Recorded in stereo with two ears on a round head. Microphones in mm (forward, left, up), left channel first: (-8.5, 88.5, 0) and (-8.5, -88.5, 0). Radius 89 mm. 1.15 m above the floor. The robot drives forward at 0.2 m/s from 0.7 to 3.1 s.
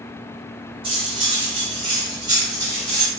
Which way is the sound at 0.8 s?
25° right (ahead or behind).